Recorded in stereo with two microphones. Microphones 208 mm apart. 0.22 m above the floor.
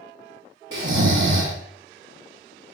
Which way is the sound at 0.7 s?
75° right (ahead or behind).